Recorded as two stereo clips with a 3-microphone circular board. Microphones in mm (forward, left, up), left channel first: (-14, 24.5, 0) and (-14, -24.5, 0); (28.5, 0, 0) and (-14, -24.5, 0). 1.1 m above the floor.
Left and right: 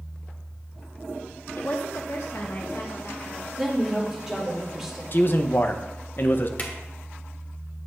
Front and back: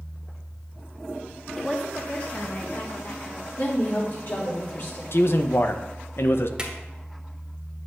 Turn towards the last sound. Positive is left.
turn(degrees=140)